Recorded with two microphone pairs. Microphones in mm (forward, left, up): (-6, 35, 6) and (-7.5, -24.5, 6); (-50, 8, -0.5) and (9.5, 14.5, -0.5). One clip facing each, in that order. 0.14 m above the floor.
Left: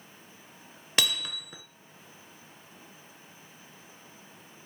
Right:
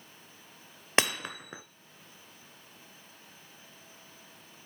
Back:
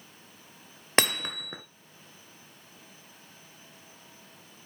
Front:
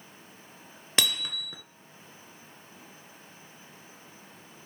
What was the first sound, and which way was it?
Hammering, 140° right.